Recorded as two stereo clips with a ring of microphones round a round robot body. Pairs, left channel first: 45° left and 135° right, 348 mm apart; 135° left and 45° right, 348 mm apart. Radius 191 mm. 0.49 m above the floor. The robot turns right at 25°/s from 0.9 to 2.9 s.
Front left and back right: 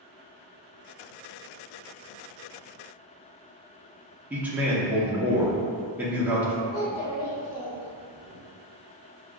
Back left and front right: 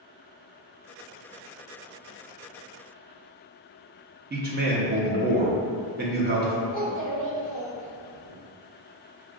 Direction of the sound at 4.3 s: 55° right.